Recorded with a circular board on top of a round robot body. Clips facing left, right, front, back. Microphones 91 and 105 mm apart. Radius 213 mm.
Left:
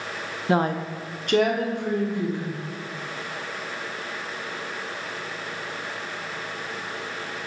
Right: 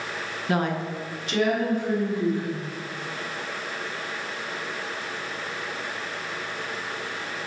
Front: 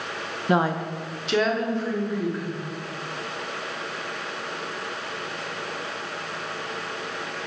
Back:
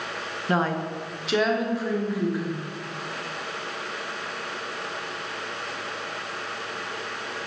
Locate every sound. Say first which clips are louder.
0.5 s a woman speaking: left 3 dB, front 2 dB; 55° left, 0.7 m; by 2.6 s 100° left, 2 m